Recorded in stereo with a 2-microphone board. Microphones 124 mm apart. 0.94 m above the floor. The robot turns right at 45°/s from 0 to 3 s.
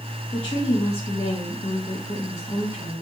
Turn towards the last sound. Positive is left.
turn(degrees=165)